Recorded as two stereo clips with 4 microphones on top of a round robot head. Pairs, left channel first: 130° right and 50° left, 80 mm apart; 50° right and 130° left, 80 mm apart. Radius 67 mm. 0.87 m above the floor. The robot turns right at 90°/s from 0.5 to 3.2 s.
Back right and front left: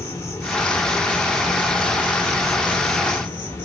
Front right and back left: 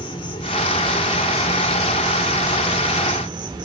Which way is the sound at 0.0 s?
75° right.